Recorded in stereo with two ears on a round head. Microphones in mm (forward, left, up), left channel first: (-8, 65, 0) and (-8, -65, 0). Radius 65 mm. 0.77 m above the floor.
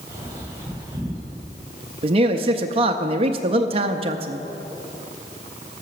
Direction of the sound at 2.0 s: 40° right (ahead or behind).